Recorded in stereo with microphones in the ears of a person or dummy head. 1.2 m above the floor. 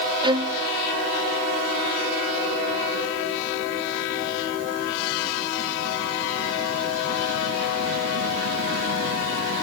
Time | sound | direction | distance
0.2 | a violin | 25° right (ahead or behind) | 0.6 m